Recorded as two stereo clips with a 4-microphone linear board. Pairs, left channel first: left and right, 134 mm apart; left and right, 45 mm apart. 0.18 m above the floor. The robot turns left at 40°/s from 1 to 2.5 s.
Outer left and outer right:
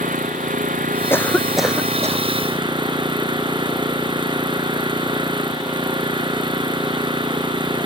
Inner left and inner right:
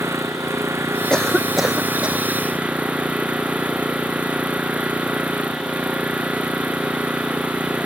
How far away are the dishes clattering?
No dishes clattering in this recording.